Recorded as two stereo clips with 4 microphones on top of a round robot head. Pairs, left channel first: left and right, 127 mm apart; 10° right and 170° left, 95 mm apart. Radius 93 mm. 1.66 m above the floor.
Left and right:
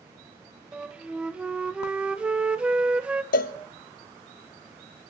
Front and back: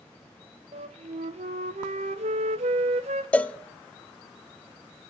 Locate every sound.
0.7 s a flute: 170° right, 0.6 m
3.3 s a cowbell: 70° left, 0.7 m